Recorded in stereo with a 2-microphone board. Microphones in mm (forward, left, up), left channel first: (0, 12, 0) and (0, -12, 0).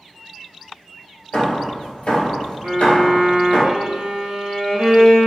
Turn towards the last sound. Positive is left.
turn(degrees=-65)  # may be behind; listen again after turning